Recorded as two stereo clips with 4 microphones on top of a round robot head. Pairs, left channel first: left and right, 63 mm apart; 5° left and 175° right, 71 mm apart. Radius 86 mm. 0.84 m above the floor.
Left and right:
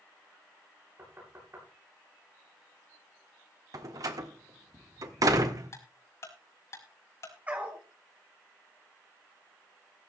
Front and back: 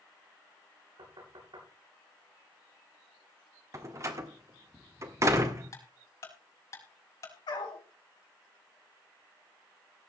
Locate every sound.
1.0 s knocking: 150° right, 9.5 m
3.7 s a door slam: 120° right, 1.9 m
5.7 s ticking: 50° left, 5 m
7.5 s a dog barking: 25° right, 3.5 m